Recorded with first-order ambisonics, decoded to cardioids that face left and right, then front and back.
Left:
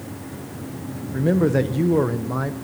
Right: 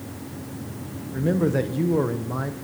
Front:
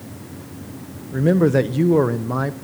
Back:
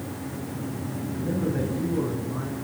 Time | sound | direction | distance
1.1 | a man speaking | 15° left | 0.6 m